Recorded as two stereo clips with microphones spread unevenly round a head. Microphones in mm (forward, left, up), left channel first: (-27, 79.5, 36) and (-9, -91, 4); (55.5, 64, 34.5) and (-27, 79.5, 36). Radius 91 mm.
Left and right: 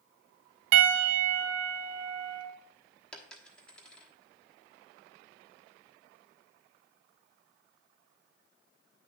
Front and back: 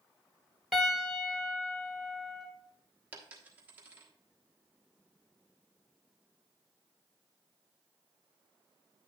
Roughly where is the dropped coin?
Behind left.